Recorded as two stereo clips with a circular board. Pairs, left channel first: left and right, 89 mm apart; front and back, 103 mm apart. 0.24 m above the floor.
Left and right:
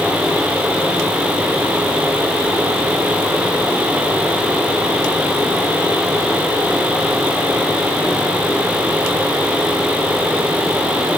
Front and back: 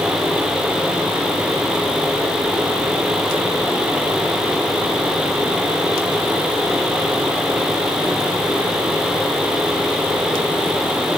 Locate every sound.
Only background noise.